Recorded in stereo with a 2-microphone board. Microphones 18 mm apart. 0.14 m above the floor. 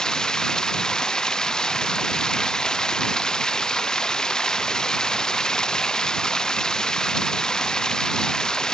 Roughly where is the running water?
Left.